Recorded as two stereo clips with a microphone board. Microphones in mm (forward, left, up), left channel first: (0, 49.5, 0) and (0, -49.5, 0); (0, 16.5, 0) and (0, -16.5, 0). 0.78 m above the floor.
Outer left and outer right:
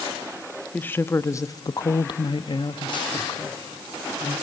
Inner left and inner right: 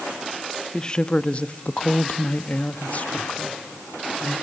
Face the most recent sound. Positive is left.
turn(degrees=35)  # may be behind; listen again after turning